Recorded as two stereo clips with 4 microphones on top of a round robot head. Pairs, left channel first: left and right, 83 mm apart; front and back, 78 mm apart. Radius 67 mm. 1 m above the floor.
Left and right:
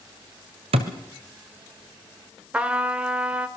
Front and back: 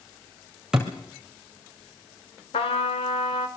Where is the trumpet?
15° right, 1.8 m.